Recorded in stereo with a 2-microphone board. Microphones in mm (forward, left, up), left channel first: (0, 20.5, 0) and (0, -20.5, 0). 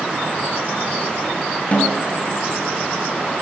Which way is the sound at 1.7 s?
30° left (ahead or behind).